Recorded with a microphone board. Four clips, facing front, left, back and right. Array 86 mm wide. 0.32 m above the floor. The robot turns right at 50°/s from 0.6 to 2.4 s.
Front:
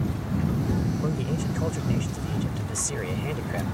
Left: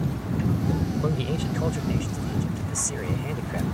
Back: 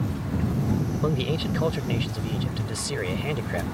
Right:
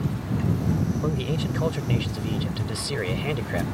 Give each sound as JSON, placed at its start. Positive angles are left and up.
{"t": 1.0, "sound": "a man speaking", "azimuth_deg": 170}